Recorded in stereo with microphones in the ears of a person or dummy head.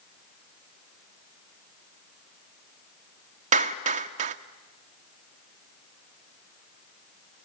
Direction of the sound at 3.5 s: 45° right (ahead or behind).